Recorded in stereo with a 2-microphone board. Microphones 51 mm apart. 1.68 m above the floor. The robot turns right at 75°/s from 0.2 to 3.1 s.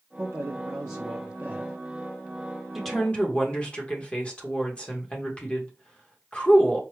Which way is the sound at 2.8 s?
Centre (ahead or behind).